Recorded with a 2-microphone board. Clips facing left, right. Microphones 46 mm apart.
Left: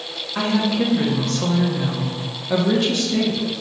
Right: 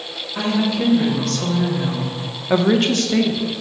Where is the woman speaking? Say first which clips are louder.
Even; 30° left (ahead or behind), 1.3 m; by 3.4 s 80° right, 0.7 m.